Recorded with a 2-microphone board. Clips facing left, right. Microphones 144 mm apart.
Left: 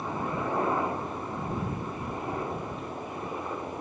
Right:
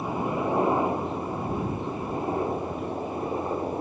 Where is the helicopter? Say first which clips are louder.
Right 4 dB; 20° right (ahead or behind); by 3.8 s 25° right (ahead or behind).